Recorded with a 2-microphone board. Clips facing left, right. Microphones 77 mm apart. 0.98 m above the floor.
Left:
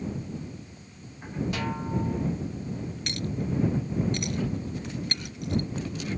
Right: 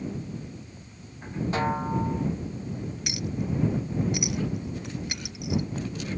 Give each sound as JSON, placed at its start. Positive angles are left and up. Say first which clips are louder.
{"t": 1.5, "sound": "a snare drum", "louder": "right 8 dB", "side_deg": -35}
{"t": 3.1, "sound": "a clink", "louder": "even", "side_deg": -10}